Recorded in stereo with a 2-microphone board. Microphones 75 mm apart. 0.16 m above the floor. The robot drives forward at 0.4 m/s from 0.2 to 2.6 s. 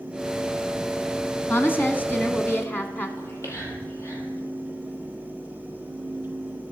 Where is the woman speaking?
25° left (ahead or behind), 1.1 m.